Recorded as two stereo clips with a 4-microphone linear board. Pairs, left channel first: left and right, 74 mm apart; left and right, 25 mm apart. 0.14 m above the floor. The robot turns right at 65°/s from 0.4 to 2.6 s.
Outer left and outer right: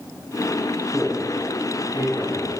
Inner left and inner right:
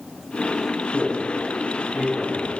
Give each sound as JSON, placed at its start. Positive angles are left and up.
{"t": 0.9, "sound": "a man speaking", "side_deg": -15, "distance_m": 2.5}